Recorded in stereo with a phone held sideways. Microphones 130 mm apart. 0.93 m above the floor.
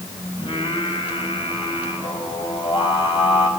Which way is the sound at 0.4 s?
40° left (ahead or behind).